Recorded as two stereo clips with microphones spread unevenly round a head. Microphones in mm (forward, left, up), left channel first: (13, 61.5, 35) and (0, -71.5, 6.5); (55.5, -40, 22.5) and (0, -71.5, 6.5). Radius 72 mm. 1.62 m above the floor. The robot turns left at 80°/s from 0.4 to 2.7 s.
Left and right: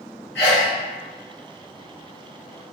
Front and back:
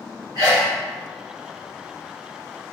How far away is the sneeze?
About 1.6 m.